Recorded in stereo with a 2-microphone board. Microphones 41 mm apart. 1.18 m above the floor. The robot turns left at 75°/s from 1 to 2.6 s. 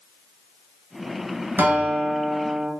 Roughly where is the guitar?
Right.